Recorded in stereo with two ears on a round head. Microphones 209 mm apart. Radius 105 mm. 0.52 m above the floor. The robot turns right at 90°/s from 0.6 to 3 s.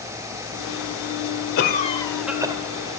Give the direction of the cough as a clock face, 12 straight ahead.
8 o'clock.